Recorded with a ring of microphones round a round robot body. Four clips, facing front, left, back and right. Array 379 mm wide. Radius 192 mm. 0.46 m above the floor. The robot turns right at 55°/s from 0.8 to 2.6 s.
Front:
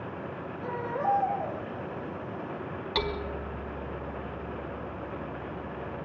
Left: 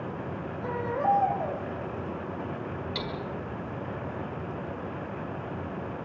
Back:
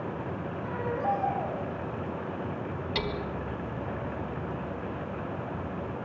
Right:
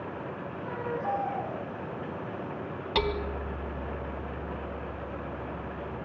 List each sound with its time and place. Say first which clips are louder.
0.6 s a baby crying: left 6 dB, front 1 dB; 55° left, 8.5 m; by 1.6 s 105° left, 8.5 m
3.0 s hammering: right 5 dB, front 3 dB; 70° right, 1.2 m